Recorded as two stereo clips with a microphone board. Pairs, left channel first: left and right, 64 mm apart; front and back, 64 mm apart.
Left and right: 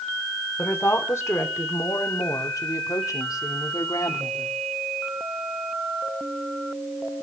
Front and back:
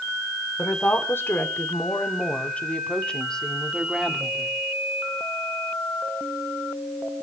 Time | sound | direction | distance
0.6 | a woman speaking | 45° left | 2.5 m